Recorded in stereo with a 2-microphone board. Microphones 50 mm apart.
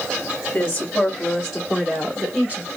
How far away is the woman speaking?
About 1.1 m.